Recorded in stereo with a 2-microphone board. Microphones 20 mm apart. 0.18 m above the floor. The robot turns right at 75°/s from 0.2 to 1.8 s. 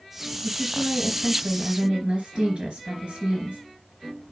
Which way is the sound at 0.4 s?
150° left.